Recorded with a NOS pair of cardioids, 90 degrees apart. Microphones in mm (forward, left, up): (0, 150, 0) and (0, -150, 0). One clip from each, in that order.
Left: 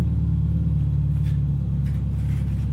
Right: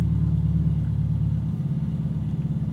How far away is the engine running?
About 0.9 m.